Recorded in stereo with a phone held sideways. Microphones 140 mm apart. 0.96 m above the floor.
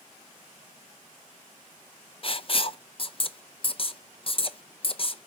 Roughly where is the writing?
Left.